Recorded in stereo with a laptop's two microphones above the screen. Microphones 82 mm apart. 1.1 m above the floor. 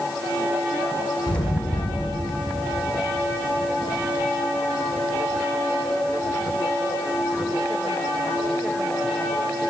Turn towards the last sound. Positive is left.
turn(degrees=75)  # may be behind; listen again after turning